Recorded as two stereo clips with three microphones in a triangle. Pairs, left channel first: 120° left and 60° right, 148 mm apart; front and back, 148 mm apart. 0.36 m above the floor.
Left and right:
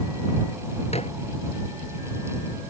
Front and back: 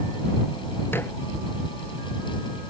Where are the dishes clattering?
75° left.